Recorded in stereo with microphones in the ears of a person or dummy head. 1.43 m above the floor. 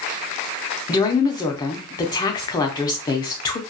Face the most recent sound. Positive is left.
turn(degrees=20)  # may be behind; listen again after turning